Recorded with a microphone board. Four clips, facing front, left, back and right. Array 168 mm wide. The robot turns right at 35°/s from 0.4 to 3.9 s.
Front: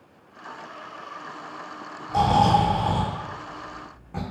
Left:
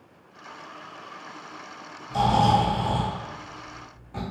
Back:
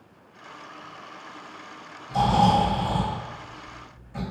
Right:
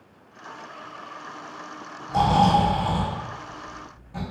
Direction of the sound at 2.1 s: 50° right.